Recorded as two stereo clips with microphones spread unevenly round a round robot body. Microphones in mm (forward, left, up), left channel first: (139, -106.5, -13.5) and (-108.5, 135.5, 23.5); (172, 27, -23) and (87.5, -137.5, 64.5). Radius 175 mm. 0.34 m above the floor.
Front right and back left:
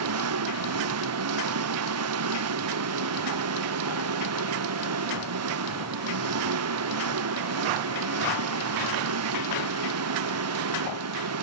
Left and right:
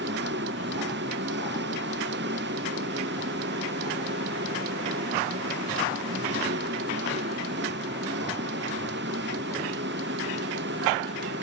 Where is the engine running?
175° right.